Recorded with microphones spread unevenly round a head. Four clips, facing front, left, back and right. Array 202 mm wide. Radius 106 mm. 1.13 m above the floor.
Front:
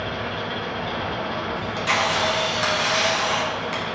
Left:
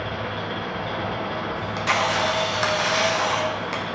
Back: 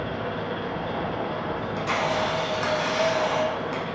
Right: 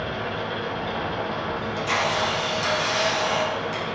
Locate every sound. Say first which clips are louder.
0.0 s an engine running: even, front 1 dB; 120° left, 1.0 m
1.6 s a camera shutter: left 3 dB, front 4 dB; 75° left, 0.8 m